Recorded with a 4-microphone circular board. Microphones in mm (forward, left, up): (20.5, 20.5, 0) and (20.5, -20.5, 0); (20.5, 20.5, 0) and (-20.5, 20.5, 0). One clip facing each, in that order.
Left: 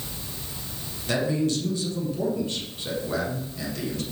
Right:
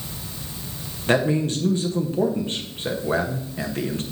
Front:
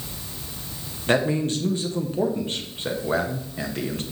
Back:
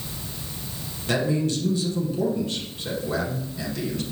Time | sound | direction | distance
1.1 | a man speaking | 40° right | 1.2 m